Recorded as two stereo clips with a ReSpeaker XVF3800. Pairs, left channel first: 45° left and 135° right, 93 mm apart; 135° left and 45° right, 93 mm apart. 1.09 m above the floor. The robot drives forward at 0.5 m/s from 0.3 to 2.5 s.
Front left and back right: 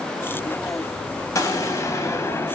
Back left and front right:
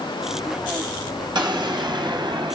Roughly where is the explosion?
Ahead.